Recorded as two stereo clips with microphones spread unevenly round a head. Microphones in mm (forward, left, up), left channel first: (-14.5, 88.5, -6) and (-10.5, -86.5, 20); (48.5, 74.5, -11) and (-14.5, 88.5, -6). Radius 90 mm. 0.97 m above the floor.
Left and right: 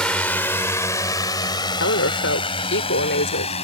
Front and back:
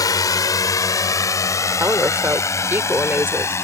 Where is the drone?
5° left; by 3.6 s 30° left.